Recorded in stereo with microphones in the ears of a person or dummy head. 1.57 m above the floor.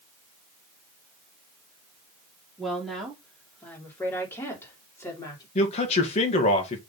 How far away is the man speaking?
About 1.9 m.